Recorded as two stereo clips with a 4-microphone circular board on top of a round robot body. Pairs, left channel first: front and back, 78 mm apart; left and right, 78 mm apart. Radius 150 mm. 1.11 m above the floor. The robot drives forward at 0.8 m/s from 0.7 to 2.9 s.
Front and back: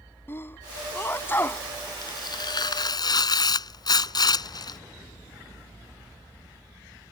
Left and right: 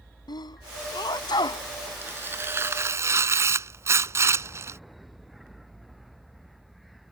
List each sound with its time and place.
0.3 s a sneeze: 60° left; by 1.7 s 65° left
2.0 s tearing paper: 25° right; by 4.8 s 35° right